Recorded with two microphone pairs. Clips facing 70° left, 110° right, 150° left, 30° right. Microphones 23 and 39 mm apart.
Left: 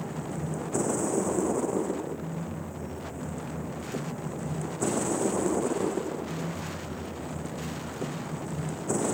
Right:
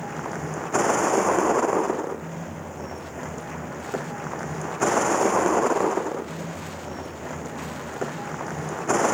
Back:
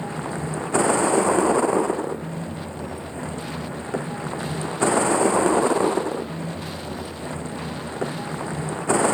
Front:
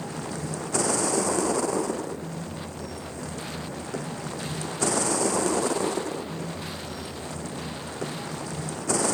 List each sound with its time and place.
0.0 s a vehicle: 150° right